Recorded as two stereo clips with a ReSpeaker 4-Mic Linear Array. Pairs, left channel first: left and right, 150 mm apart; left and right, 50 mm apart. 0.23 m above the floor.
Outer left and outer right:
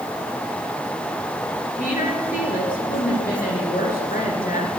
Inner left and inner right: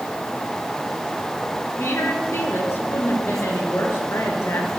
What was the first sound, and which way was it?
A woman speaking, 70° left (ahead or behind).